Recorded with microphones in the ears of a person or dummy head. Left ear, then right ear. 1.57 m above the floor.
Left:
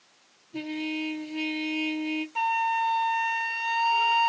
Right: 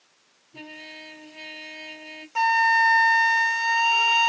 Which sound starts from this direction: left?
A trumpet, at 0.5 s.